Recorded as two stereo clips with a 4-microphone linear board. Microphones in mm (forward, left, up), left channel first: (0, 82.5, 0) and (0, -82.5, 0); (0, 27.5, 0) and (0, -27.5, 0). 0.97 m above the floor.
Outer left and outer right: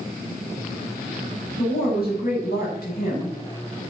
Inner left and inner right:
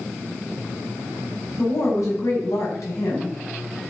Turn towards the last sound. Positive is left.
turn(degrees=75)  # may be behind; listen again after turning